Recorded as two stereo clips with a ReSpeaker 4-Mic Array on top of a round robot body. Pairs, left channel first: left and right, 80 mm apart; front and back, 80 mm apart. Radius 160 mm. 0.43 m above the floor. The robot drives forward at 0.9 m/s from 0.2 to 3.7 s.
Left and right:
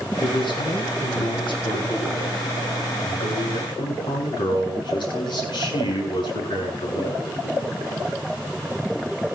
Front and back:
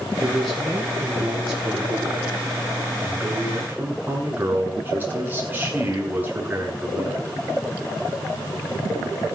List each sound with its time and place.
0.2 s a man speaking: 85° left, 7 m; by 7.3 s 110° left, 7.5 m